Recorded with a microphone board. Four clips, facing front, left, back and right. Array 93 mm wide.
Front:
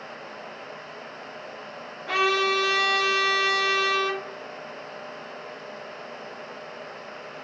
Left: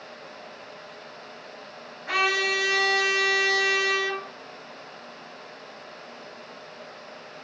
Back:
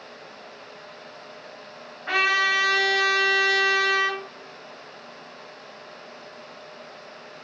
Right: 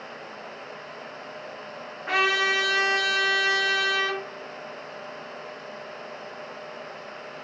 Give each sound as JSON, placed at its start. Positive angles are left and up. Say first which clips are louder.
{"t": 2.1, "sound": "a trumpet", "louder": "right 1 dB, back 1 dB", "azimuth_deg": -145, "distance_m": 1.7}